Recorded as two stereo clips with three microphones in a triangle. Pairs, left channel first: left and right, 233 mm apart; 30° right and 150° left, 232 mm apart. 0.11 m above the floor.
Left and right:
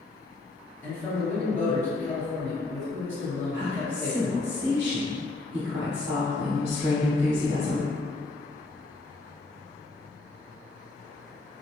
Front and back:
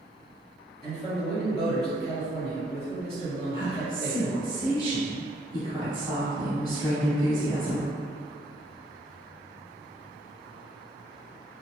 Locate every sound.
0.8 s a man speaking: 165° left, 2.0 m
3.5 s a woman speaking: 100° right, 1.7 m